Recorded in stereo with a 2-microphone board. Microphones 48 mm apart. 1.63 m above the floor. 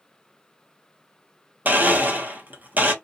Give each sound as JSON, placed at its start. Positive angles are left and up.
{"t": 1.6, "sound": "a blender", "side_deg": -35, "distance_m": 0.9}